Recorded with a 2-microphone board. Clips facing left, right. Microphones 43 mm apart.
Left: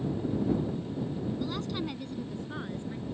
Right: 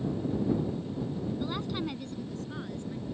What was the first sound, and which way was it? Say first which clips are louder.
A woman speaking: even; 20° right (ahead or behind).